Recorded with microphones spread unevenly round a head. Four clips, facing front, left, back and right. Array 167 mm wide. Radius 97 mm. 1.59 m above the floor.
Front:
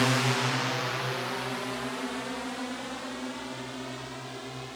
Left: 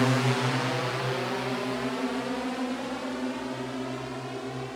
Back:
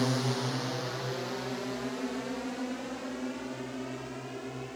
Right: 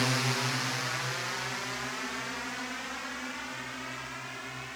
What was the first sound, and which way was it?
A drone, 90° left.